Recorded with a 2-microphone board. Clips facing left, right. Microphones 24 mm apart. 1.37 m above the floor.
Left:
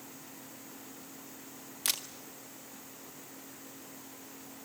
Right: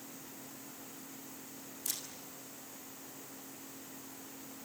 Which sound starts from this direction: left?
A camera shutter, at 1.9 s.